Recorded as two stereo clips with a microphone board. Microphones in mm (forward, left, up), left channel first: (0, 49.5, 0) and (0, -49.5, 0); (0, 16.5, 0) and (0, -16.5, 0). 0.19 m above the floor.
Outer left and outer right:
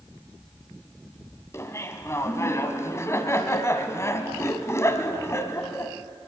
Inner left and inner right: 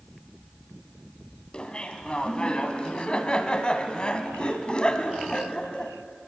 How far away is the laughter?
About 1.6 m.